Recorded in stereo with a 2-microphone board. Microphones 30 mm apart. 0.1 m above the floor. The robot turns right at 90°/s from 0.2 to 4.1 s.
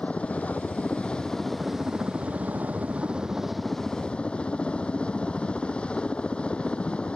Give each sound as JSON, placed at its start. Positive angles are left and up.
{"t": 0.0, "sound": "a helicopter", "azimuth_deg": 50}